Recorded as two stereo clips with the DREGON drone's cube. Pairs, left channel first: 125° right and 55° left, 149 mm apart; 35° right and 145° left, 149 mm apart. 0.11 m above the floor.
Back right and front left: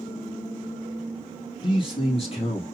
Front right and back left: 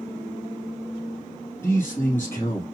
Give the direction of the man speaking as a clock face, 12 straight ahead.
3 o'clock.